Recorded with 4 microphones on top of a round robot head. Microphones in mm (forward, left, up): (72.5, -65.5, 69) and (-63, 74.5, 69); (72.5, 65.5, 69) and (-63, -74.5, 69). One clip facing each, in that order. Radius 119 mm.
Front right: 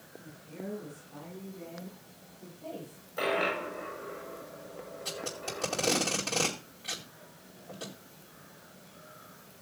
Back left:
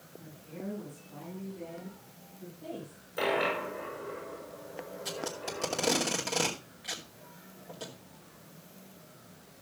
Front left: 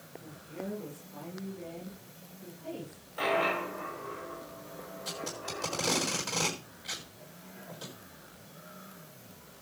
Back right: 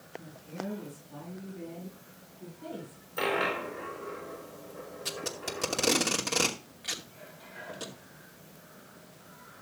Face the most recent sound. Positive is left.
turn(degrees=-150)